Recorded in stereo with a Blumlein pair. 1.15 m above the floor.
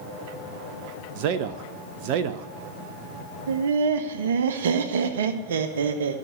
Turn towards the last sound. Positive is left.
turn(degrees=-60)